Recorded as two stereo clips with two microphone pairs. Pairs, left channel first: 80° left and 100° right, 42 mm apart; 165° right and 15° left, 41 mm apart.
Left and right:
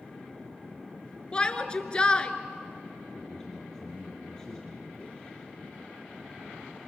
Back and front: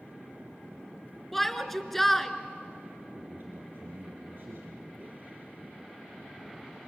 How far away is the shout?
About 1.5 m.